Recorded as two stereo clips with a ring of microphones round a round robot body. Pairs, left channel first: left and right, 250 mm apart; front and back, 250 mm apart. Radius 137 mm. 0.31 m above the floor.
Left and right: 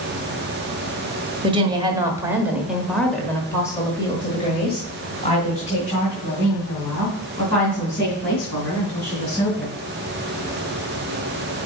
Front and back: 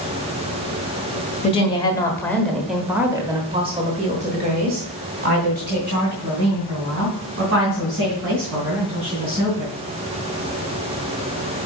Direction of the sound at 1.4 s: 40° right.